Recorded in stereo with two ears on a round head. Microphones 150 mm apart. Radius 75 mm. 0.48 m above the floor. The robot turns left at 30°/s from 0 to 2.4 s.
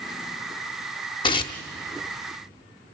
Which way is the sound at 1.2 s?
30° left (ahead or behind).